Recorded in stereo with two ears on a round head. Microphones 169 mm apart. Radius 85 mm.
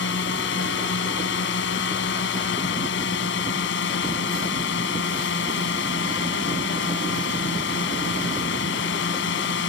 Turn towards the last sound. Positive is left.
turn(degrees=70)  # may be behind; listen again after turning